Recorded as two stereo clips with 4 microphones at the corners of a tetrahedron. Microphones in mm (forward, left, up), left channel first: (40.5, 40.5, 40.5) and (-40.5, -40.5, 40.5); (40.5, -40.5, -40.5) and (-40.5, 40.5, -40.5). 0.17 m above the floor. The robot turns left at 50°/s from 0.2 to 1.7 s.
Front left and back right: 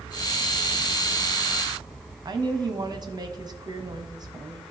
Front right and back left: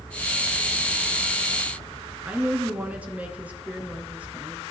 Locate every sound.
2.2 s a woman speaking: 155° right, 1.2 m